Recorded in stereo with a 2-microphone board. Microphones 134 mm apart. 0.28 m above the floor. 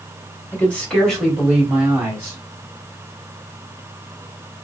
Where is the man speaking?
15° left (ahead or behind), 1.6 m; by 2.4 s 25° right (ahead or behind), 1.5 m.